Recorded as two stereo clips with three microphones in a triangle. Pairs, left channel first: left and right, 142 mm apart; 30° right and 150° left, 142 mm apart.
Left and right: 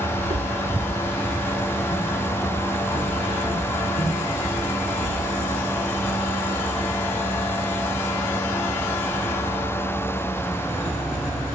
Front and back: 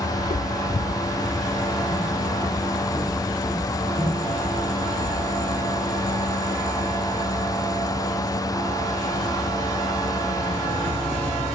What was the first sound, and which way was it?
Footsteps, 55° right.